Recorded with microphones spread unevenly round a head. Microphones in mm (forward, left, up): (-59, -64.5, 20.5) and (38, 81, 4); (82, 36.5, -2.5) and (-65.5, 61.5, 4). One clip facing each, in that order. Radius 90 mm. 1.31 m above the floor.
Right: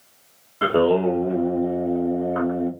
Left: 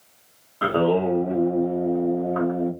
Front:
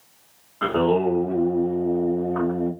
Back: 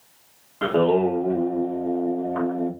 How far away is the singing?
About 0.8 m.